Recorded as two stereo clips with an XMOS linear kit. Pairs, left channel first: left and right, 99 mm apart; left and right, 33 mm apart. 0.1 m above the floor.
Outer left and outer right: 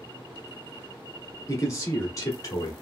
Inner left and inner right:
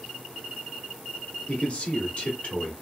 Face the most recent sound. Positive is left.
turn(degrees=35)  # may be behind; listen again after turning